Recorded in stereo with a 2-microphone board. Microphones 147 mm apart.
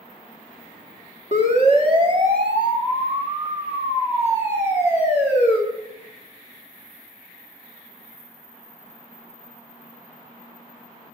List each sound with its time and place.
1.3 s a siren: 55° right (ahead or behind), 3.5 m; by 5.6 s 10° right (ahead or behind), 7 m